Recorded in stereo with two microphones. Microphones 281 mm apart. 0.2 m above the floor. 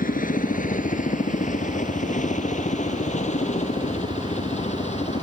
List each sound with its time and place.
0.0 s a helicopter: 25° left (ahead or behind); by 5.2 s 20° left (ahead or behind)